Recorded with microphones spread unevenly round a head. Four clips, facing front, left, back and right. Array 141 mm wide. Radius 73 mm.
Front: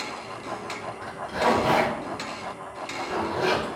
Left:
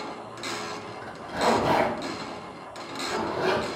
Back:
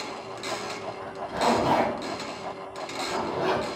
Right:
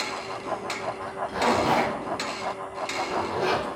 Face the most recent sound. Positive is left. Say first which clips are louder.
# even, front 1 dB
turn(degrees=-95)